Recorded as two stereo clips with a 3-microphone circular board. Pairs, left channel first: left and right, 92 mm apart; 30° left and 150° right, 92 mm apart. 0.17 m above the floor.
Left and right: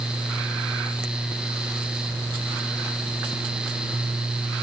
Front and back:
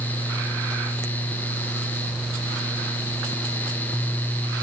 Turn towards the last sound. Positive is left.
No sound to turn to.